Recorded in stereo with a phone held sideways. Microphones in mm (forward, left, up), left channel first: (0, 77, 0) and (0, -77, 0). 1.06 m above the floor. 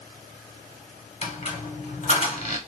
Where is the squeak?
45° left (ahead or behind), 1.2 m.